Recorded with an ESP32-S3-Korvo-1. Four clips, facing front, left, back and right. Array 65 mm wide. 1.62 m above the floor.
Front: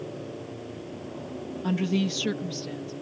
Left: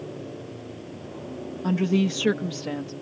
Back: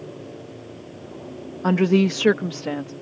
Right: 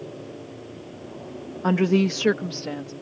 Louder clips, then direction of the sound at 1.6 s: Right 3 dB, back 9 dB; 140° right.